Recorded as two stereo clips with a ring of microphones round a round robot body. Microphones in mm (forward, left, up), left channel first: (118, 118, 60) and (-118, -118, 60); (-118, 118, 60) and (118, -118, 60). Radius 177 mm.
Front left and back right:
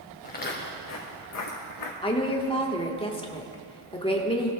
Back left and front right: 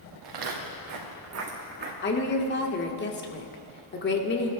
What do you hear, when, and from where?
0.2 s footsteps: 20° right, 3 m; by 1.9 s 15° left, 3 m
2.0 s a woman speaking: 110° left, 1.5 m